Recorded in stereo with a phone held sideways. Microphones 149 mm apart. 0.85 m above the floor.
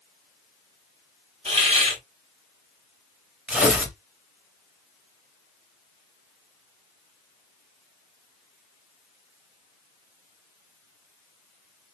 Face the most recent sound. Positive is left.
turn(degrees=-5)  # may be behind; listen again after turning